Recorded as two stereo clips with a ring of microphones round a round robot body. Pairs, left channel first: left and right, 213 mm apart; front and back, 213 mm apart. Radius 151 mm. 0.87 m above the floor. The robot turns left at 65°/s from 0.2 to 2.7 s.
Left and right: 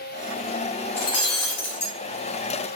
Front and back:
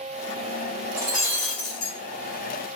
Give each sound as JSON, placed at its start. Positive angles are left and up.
{"t": 1.0, "sound": "breaking glass", "azimuth_deg": 105, "distance_m": 2.5}